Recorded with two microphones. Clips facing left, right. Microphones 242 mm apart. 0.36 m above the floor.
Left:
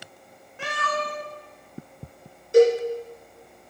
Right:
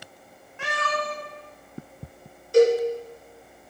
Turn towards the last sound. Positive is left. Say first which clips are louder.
# left 1 dB
turn(degrees=20)  # may be behind; listen again after turning